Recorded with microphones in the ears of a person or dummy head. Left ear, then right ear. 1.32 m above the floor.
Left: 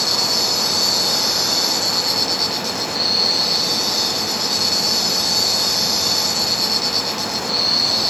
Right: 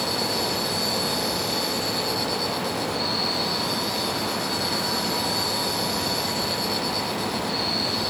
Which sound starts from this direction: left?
An insect, at 0.0 s.